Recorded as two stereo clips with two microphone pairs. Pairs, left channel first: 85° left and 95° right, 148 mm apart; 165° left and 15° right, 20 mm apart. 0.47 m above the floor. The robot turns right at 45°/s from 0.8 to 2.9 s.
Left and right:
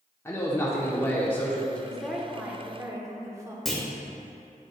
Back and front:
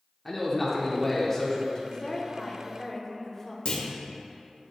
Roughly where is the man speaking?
Left.